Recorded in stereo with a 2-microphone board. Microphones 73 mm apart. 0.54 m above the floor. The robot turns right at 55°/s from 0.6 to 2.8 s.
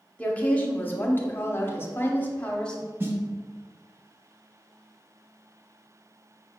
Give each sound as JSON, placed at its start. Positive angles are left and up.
{"t": 0.2, "sound": "a woman speaking", "azimuth_deg": 40, "distance_m": 0.7}
{"t": 3.0, "sound": "a snare drum", "side_deg": -30, "distance_m": 0.7}